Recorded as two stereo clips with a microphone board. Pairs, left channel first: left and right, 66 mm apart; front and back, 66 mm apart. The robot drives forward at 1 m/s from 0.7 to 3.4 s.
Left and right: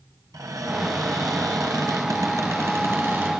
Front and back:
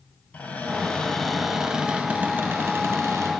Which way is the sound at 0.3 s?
65° right.